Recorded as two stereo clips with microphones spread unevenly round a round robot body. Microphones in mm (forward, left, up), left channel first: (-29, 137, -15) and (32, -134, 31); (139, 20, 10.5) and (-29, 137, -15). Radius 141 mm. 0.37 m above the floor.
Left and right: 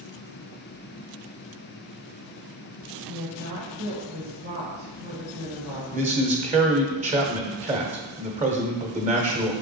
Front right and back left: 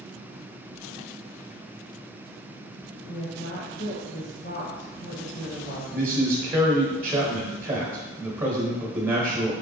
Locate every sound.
3.1 s a woman speaking: 40° right, 1.9 m
5.9 s a man speaking: 145° right, 1.1 m